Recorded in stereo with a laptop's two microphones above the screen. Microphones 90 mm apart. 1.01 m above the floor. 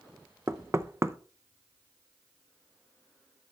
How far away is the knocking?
About 0.6 m.